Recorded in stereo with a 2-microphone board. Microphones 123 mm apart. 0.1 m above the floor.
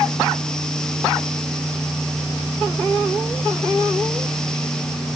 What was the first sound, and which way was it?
Only background noise.